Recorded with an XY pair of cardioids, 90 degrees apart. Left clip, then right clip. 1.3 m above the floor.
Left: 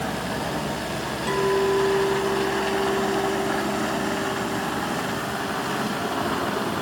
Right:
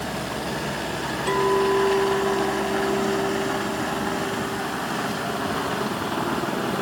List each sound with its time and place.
1.3 s a clink: 25° right, 2.5 m